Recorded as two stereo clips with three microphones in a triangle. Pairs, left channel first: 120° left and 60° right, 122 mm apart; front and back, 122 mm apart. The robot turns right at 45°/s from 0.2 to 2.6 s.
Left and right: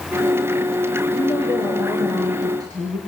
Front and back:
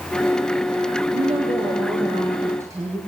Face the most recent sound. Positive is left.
turn(degrees=-115)